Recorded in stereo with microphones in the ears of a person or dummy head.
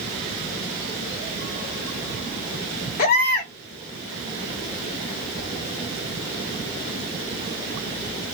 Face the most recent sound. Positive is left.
turn(degrees=40)  # may be behind; listen again after turning